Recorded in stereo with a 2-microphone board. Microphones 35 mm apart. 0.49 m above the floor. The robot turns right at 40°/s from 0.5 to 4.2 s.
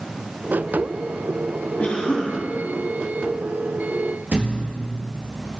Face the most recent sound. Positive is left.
turn(degrees=-65)  # may be behind; listen again after turning